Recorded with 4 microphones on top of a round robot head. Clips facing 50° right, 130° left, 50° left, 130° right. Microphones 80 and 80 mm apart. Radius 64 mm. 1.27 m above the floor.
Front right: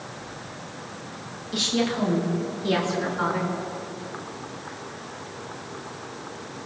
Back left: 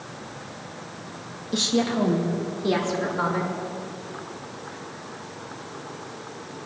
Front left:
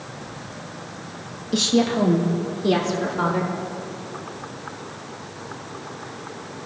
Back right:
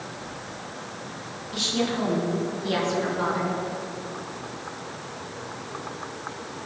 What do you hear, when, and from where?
1.5 s a woman speaking: 70° left, 1.7 m; by 3.5 s 65° left, 4 m